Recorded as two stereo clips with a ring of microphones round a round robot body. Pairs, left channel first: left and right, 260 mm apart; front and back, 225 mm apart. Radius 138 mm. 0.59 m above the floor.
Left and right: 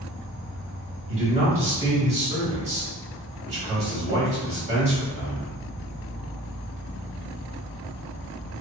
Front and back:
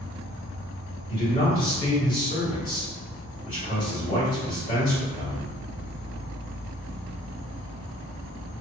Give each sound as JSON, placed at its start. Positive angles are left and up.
{"t": 0.0, "sound": "an insect", "azimuth_deg": 15, "distance_m": 1.1}
{"t": 1.1, "sound": "a man speaking", "azimuth_deg": -35, "distance_m": 1.5}